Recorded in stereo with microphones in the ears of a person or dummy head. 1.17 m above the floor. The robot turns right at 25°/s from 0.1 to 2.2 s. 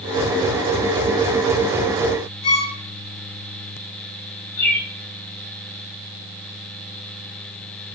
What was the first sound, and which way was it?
A violin, 50° left (ahead or behind).